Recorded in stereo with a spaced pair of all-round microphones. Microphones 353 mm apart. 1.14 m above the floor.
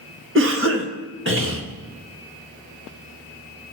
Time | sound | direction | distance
0.3 | a cough | 35° right (ahead or behind) | 1.9 m